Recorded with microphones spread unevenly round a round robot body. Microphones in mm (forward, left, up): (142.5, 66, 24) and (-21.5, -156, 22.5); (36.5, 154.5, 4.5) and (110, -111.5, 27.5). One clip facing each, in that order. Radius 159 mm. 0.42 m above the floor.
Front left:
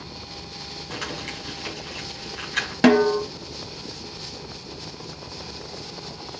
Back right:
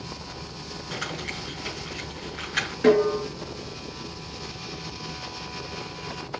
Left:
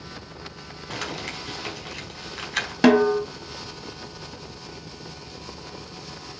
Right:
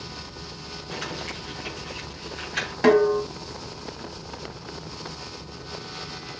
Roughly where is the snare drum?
Left.